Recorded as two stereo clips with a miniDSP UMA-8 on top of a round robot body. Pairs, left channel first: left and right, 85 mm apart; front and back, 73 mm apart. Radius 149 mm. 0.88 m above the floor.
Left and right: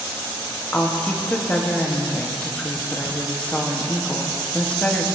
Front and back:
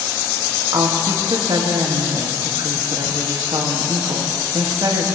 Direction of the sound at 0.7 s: 160° left.